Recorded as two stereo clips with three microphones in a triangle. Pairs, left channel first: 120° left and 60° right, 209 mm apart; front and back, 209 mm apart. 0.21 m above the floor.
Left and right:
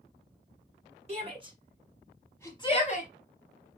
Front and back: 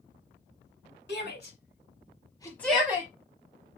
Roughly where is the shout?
Ahead.